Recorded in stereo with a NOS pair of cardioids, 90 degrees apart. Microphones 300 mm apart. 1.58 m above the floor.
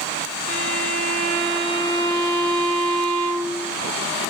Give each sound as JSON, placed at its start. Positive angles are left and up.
{"t": 0.5, "sound": "a violin", "azimuth_deg": -35, "distance_m": 5.5}